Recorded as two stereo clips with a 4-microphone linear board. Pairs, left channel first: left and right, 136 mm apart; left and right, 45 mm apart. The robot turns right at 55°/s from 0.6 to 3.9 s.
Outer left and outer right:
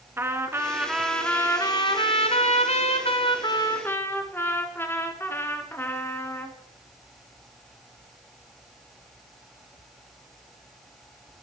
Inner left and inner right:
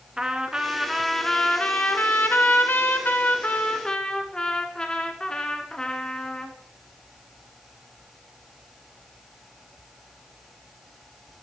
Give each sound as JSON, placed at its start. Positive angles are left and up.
{"t": 0.2, "sound": "a trumpet", "azimuth_deg": -20, "distance_m": 1.1}